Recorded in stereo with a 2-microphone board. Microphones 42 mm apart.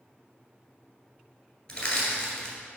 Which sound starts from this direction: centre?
Crushing, at 1.7 s.